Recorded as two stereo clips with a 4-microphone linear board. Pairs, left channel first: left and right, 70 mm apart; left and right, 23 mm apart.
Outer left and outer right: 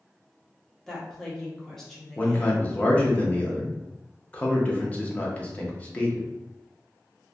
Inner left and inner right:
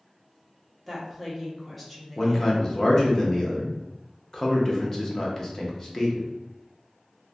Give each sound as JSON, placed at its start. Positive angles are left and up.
{"t": 0.9, "sound": "a woman speaking", "side_deg": 5, "distance_m": 0.8}
{"t": 2.2, "sound": "a man speaking", "side_deg": 20, "distance_m": 0.5}